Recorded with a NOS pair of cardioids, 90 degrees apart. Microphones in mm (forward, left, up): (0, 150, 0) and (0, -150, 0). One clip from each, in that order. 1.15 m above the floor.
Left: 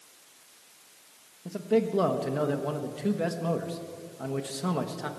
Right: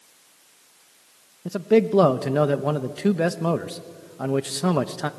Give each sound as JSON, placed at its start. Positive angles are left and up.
{"t": 1.4, "sound": "a man speaking", "azimuth_deg": -50, "distance_m": 1.1}